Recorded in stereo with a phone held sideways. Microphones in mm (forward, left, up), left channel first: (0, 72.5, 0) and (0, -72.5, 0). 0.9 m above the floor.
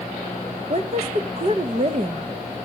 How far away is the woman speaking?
About 0.7 m.